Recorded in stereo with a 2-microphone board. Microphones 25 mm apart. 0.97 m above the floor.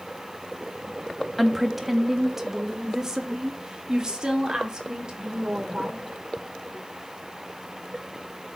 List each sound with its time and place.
1.4 s a woman speaking: centre (ahead or behind), 1.3 m; by 6.0 s 35° right (ahead or behind), 3.5 m